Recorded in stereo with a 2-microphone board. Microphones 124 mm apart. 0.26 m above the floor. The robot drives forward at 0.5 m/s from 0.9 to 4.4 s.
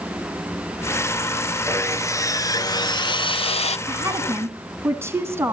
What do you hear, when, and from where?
1.7 s sawing: 20° left (ahead or behind), 1.4 m; by 3.8 s 60° left (ahead or behind), 0.6 m
3.9 s a woman speaking: 20° right (ahead or behind), 2.5 m